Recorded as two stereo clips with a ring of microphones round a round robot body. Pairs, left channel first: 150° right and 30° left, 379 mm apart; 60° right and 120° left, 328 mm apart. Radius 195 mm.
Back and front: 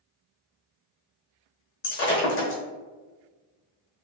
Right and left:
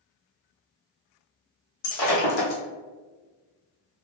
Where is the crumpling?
I don't hear crumpling.